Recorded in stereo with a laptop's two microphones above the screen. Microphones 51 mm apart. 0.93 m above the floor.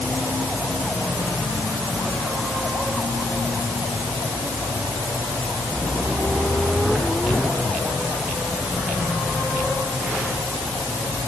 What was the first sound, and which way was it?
Only background noise.